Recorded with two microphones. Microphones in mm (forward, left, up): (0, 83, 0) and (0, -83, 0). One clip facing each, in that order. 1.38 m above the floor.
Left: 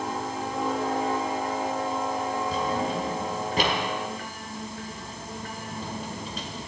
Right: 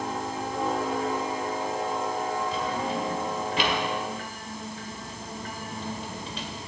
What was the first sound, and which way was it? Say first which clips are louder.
A drawer: left 2 dB; 45° left (ahead or behind).